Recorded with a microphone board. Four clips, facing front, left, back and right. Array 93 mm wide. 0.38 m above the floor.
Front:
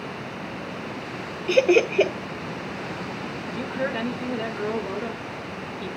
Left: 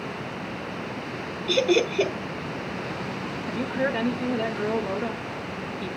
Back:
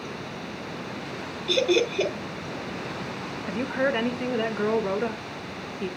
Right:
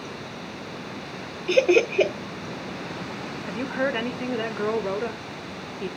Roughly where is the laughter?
Ahead right.